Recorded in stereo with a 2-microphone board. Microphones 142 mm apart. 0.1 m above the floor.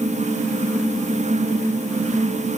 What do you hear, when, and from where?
Only background noise.